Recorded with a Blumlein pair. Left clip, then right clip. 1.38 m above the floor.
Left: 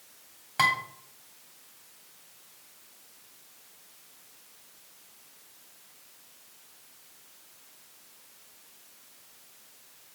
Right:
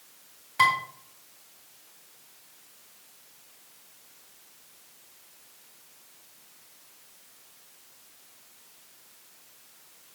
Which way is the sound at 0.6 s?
20° left.